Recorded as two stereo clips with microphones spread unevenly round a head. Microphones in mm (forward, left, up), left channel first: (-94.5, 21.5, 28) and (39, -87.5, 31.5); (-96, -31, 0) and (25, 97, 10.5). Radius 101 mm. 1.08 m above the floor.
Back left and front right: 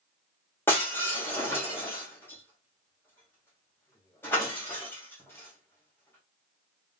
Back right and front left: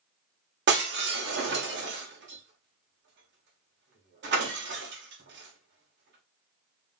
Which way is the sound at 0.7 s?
60° left.